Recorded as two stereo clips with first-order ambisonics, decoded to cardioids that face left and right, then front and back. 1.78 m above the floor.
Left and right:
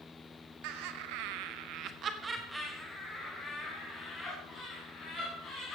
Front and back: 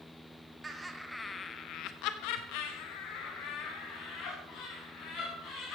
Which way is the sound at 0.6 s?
105° right.